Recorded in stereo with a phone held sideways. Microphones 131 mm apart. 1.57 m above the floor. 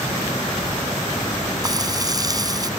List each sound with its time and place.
1.6 s frying: 30° right (ahead or behind)